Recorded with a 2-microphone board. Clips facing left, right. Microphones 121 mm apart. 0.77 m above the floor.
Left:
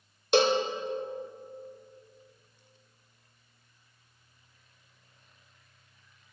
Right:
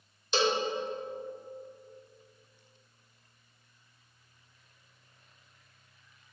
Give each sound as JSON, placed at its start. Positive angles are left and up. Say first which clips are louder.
{"t": 0.3, "sound": "a cowbell", "louder": "left 5 dB", "side_deg": 55, "distance_m": 0.7}